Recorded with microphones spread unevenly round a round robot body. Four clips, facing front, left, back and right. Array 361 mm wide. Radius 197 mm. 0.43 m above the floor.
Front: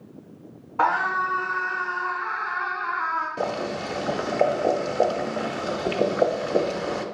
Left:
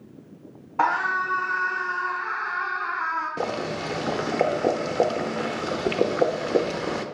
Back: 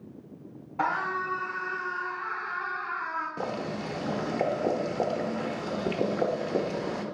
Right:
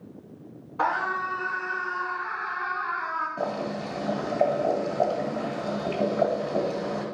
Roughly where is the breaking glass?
I don't hear breaking glass.